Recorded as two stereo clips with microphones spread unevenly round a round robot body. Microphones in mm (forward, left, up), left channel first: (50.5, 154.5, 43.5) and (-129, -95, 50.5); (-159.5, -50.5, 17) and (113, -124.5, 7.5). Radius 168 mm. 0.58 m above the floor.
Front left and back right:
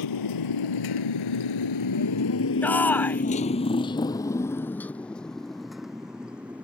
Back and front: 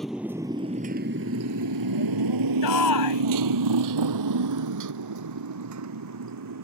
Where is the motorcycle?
75° left; by 6.6 s 40° right.